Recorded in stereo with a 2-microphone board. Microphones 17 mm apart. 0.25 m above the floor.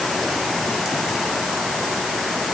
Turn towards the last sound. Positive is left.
No sound to turn to.